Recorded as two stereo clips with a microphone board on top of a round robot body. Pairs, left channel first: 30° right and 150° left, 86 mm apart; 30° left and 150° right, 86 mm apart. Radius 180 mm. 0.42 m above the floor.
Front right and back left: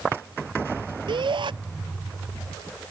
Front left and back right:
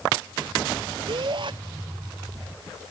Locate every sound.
1.1 s a shout: straight behind